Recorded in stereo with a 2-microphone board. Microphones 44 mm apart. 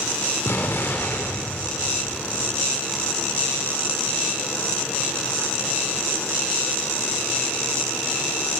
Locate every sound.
0.5 s an explosion: 65° left (ahead or behind), 1.3 m